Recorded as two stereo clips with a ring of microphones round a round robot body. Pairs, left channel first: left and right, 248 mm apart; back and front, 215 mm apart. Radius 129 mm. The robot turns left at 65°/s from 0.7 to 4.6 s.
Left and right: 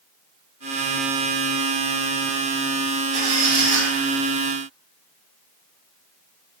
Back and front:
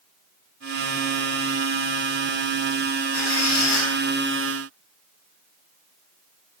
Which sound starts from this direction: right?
A squeak, at 3.1 s.